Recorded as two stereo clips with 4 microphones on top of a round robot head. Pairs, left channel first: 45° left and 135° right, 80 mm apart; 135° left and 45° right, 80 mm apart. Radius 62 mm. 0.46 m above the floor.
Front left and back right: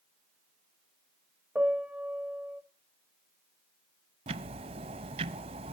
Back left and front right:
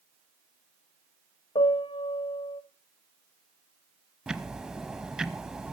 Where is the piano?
150° left, 1.4 m.